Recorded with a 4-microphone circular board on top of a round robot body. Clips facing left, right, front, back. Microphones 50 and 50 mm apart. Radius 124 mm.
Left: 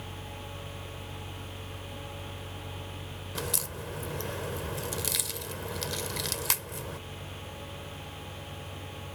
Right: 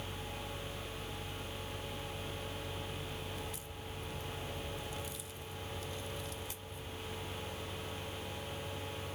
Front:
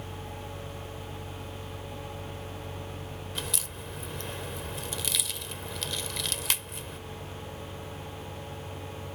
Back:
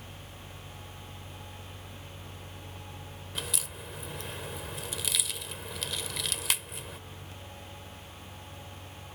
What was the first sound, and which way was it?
A crack, 95° left.